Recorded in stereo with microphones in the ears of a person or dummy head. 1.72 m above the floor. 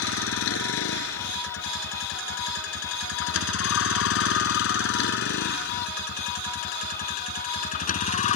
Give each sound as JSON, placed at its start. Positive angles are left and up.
{"t": 0.0, "sound": "a vehicle", "side_deg": 80}